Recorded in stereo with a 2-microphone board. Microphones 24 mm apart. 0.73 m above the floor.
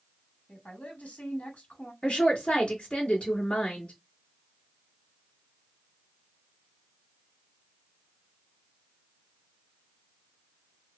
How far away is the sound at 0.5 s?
About 1.7 m.